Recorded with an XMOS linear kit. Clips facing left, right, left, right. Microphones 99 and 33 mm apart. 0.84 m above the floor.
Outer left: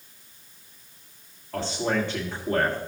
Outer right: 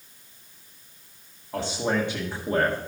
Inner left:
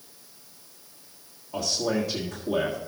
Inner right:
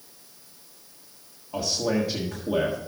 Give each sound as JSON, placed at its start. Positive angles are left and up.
{"t": 1.5, "sound": "a man speaking", "side_deg": -15, "distance_m": 1.5}